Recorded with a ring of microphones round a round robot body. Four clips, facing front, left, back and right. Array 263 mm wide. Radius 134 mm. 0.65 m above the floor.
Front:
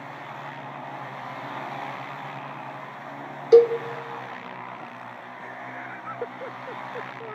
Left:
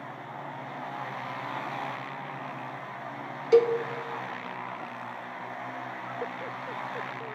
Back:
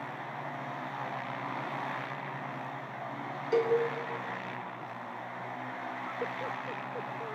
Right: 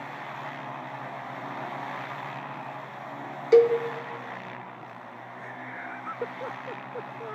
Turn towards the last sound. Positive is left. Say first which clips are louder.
# right 3 dB, front 12 dB
turn(degrees=-20)